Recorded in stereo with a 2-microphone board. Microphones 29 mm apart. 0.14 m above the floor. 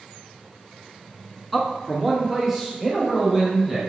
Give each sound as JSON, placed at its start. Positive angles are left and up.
{"t": 1.5, "sound": "a man speaking", "side_deg": 0, "distance_m": 1.1}